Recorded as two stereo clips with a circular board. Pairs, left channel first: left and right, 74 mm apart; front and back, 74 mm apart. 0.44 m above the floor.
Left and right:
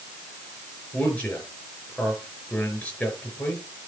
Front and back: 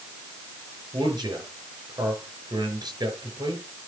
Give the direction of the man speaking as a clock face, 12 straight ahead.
7 o'clock.